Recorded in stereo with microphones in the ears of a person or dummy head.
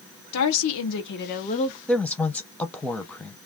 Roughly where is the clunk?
I don't hear a clunk.